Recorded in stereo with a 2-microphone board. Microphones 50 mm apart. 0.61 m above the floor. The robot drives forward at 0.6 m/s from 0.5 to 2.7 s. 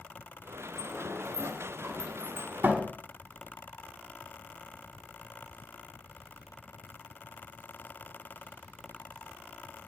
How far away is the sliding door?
About 3 m.